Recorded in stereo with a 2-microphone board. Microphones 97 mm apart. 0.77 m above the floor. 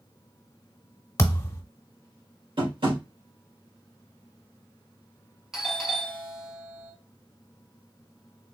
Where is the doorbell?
5° right (ahead or behind), 1.2 m.